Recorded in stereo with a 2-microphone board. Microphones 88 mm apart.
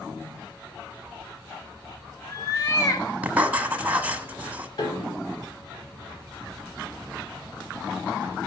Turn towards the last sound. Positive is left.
turn(degrees=55)  # may be behind; listen again after turning